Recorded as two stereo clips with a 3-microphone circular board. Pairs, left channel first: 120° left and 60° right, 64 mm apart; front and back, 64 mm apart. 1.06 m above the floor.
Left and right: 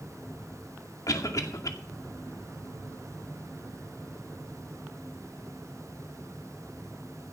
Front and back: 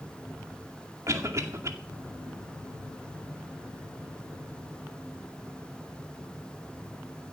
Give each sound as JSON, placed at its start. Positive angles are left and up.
{"t": 1.1, "sound": "a cough", "azimuth_deg": 145, "distance_m": 2.0}